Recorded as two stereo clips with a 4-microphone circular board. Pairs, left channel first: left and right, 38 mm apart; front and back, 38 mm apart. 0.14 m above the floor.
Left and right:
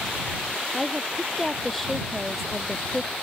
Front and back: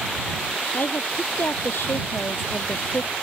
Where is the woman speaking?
Straight ahead.